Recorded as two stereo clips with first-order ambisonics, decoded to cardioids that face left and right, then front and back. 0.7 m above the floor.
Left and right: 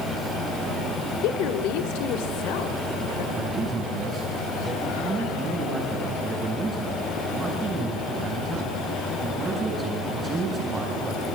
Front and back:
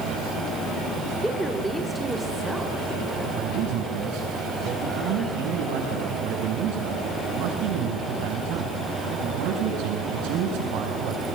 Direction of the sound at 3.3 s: 165° right.